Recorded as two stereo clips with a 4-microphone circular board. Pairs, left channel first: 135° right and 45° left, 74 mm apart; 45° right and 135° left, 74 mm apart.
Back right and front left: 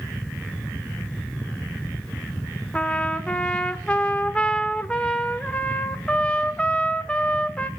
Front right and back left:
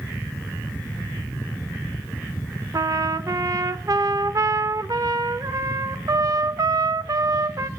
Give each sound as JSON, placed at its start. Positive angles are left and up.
{"t": 2.7, "sound": "a trumpet", "azimuth_deg": 155, "distance_m": 0.6}